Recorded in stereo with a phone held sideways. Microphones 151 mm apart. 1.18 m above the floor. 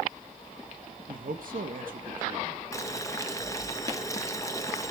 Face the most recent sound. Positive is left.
turn(degrees=20)  # may be behind; listen again after turning